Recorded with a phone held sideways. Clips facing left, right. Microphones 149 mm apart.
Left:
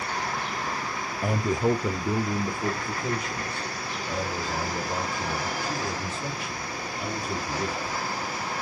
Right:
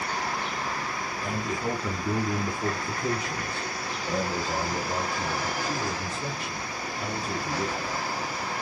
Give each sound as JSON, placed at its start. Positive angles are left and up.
{"t": 1.2, "sound": "a man speaking", "side_deg": 55, "distance_m": 0.5}